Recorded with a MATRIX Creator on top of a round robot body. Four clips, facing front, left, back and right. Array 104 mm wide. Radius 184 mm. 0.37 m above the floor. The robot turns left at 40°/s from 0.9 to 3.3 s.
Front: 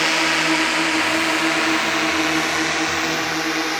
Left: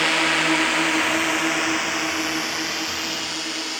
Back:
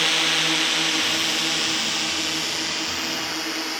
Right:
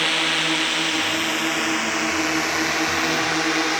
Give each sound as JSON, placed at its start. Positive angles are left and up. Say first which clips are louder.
{"t": 0.0, "sound": "a drone", "louder": "left 3 dB, front 6 dB", "azimuth_deg": 30}